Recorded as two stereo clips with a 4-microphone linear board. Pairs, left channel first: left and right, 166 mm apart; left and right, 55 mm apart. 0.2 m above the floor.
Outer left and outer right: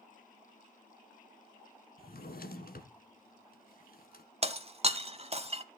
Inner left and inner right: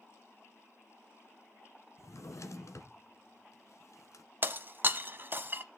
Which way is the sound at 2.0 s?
65° left (ahead or behind).